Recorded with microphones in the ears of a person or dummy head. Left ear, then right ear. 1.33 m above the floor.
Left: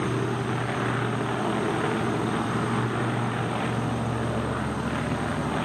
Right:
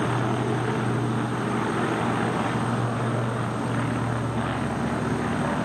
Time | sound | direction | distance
0.0 | an insect | 45° right (ahead or behind) | 2 m